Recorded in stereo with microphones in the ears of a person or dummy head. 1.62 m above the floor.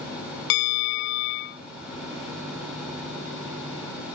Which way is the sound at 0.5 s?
65° left (ahead or behind).